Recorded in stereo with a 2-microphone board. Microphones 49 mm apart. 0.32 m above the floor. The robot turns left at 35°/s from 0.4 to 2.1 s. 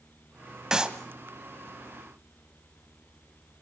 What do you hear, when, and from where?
0.7 s a clap: 10° right (ahead or behind), 1.3 m; by 1.0 s 20° right (ahead or behind), 1.3 m